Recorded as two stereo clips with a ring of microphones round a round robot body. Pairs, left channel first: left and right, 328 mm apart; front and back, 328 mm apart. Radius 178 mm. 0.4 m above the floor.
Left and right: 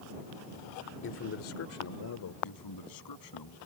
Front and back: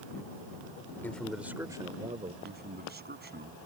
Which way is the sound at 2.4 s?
120° left.